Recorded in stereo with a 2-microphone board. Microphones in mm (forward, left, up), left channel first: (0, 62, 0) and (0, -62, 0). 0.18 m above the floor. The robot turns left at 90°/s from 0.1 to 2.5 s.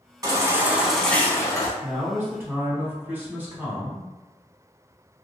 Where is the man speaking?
20° right (ahead or behind), 1.0 m; by 4.1 s 15° right (ahead or behind), 1.0 m.